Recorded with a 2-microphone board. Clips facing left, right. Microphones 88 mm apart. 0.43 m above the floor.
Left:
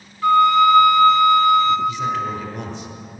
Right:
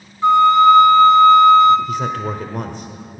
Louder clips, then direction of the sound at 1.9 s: Even; 50° right (ahead or behind).